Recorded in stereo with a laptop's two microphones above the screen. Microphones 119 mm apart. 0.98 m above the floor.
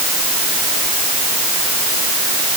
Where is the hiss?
I don't hear a hiss.